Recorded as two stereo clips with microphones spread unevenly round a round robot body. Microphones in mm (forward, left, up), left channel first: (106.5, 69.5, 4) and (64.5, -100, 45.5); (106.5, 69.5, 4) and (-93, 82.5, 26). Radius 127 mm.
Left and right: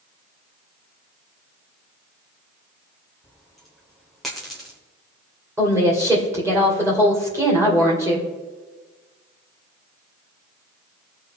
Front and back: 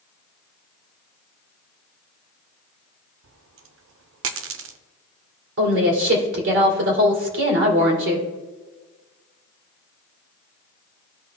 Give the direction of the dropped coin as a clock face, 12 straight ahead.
7 o'clock.